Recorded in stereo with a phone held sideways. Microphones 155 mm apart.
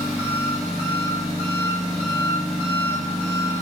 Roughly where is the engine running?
Centre.